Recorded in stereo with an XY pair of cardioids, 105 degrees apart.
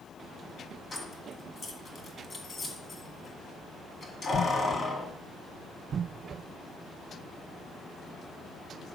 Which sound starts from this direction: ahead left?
Keys jangling, at 0.9 s.